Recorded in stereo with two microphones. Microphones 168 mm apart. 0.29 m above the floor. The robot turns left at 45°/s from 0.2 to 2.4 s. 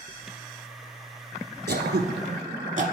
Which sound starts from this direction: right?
Throat clearing, at 1.7 s.